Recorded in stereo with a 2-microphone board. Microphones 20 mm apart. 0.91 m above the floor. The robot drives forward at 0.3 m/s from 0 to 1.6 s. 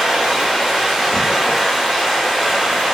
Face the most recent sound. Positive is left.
turn(degrees=-35)  # may be behind; listen again after turning